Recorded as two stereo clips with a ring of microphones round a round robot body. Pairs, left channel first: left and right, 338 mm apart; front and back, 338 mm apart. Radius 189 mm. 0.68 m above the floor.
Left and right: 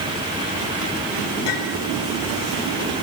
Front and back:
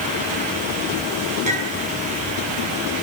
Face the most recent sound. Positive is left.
turn(degrees=110)